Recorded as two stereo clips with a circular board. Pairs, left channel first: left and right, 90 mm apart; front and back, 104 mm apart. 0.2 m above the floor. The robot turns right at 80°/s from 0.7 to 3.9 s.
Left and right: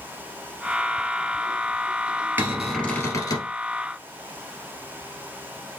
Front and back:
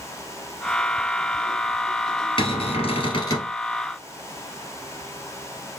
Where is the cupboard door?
20° right, 1.5 m; by 3.5 s 70° left, 1.5 m.